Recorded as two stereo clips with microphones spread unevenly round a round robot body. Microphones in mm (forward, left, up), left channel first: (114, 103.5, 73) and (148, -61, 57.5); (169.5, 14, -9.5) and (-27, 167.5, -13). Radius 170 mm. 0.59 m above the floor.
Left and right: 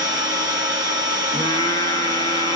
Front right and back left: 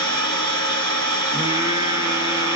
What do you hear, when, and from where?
0.0 s an engine running: 135° left, 1.8 m
1.3 s singing: 105° left, 0.6 m